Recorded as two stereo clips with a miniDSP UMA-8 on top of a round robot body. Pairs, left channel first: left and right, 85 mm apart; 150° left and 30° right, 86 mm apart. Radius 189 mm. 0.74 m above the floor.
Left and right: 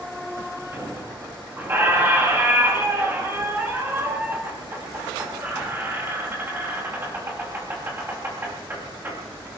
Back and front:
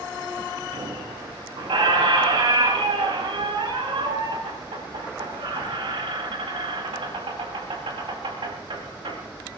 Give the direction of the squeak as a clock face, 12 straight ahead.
1 o'clock.